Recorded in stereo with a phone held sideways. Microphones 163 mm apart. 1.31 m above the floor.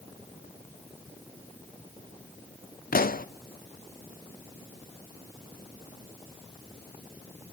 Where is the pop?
65° left (ahead or behind), 0.6 m.